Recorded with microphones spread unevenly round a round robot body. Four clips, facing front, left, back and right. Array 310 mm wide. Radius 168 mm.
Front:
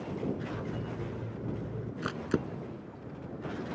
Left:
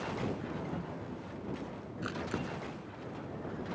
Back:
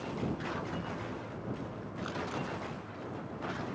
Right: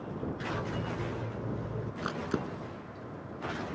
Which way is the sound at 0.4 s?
50° right.